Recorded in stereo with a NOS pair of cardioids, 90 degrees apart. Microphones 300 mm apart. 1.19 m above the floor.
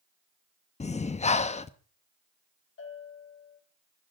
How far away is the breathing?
About 1.0 m.